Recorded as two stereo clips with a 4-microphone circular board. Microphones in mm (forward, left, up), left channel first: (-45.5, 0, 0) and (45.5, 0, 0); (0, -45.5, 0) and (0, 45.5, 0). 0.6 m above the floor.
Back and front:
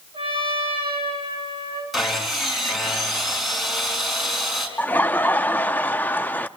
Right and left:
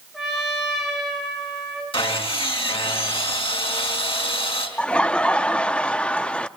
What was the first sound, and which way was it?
A trumpet, straight ahead.